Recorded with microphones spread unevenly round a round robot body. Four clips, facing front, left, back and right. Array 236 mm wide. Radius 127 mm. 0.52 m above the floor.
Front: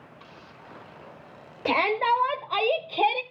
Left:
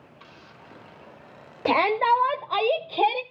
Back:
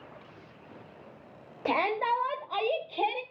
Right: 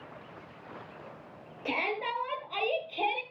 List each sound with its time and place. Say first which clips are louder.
1.6 s a shout: left 13 dB, front 4 dB; 70° left, 1.6 m; by 3.2 s 45° left, 2 m